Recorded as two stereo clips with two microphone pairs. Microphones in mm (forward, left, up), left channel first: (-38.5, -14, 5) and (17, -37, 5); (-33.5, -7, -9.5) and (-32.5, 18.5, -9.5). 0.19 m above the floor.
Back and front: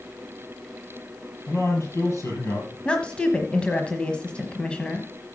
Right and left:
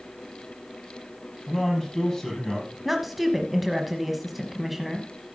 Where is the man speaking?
170° right, 5.5 m.